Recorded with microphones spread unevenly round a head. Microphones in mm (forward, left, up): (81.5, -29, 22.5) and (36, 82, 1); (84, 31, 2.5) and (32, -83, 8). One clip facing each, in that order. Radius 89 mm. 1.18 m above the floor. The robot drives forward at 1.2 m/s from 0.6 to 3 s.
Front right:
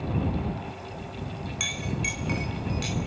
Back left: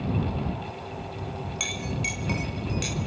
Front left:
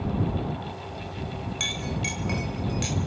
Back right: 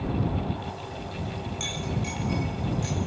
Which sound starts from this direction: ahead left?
A clink, at 1.6 s.